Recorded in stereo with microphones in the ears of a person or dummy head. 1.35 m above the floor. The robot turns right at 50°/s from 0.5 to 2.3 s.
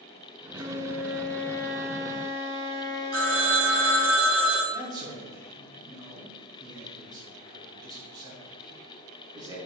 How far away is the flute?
About 0.7 m.